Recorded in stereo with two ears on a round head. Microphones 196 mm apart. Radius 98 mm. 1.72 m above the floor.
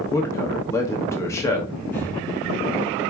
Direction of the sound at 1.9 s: 10° left (ahead or behind).